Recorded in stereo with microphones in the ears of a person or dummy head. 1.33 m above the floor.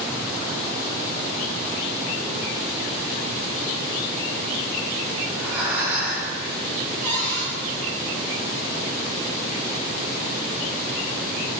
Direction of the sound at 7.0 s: 5° left (ahead or behind).